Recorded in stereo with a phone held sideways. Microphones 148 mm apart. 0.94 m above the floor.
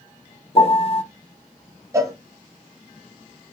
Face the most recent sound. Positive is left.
turn(degrees=-20)  # may be behind; listen again after turning